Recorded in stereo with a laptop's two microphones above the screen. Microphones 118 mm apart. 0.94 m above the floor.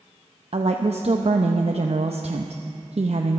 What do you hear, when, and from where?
0.5 s a woman speaking: 60° right (ahead or behind), 0.6 m